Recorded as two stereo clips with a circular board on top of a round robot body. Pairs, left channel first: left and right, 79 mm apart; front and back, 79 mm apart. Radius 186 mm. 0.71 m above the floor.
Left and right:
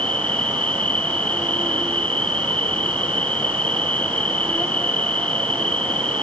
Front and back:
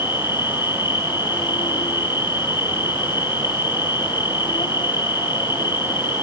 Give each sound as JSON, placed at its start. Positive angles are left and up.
{"t": 0.0, "sound": "an insect", "azimuth_deg": 15, "distance_m": 1.3}